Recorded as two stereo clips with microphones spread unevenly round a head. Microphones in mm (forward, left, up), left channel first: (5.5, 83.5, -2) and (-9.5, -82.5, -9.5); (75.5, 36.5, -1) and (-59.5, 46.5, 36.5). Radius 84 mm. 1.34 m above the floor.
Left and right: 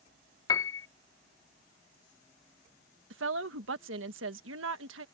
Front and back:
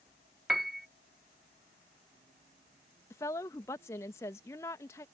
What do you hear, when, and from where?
0.5 s a piano: 125° left
3.1 s a woman speaking: 80° right